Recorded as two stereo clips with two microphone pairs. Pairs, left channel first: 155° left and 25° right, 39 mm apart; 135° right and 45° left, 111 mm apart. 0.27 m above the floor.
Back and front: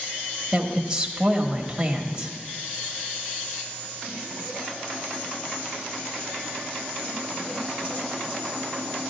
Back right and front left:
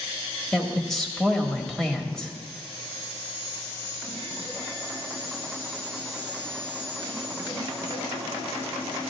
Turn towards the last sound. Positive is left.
turn(degrees=-65)